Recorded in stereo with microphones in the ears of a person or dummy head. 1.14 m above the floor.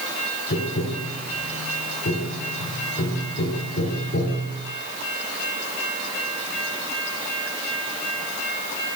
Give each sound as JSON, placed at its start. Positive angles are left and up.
{"t": 0.5, "sound": "tapping", "side_deg": 55, "distance_m": 3.5}